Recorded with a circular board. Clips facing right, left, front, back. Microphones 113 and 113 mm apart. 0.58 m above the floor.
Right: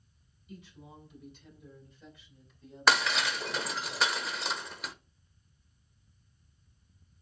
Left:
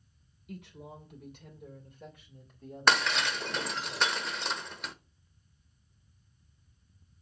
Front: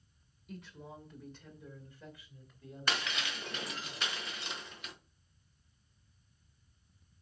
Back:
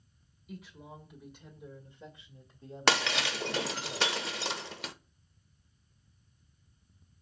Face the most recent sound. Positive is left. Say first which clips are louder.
# even, back 8 dB
turn(degrees=180)